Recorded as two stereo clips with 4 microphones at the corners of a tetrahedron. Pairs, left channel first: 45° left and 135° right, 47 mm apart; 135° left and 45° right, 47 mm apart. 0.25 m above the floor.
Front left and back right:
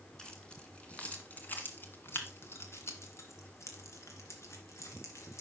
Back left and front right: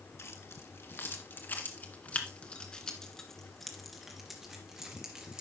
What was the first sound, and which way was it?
Keys jangling, 115° left.